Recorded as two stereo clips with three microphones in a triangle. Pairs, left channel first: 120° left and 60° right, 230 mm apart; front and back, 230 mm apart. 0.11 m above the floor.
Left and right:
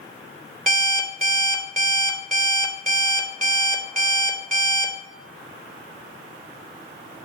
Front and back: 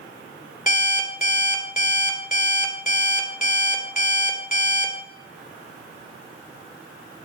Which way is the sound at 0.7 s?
35° right.